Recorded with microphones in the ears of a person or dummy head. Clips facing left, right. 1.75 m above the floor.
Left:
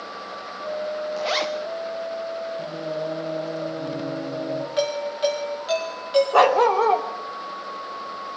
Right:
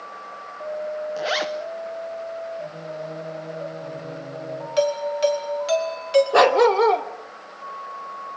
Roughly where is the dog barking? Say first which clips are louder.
Right 2 dB; right.